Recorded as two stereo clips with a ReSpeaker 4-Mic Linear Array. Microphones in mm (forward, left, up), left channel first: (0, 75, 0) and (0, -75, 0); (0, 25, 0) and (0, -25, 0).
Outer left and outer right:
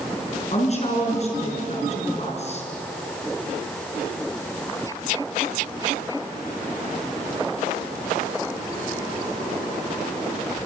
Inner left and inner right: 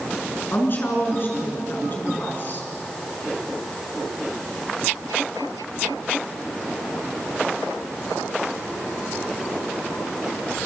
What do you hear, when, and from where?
0.5 s a woman speaking: 45° left (ahead or behind), 5.5 m